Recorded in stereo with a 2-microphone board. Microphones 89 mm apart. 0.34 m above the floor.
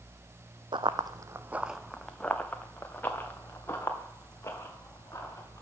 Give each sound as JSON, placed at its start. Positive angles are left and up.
{"t": 0.7, "sound": "running footsteps", "side_deg": -65, "distance_m": 0.7}